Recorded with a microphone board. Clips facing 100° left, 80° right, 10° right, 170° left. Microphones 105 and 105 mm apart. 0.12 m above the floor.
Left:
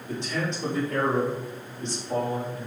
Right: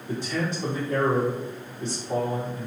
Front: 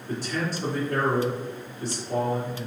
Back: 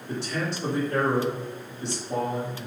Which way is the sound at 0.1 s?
5° right.